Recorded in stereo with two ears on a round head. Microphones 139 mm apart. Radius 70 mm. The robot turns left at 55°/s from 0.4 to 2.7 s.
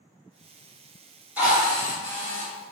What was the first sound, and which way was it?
A drill, 15° right.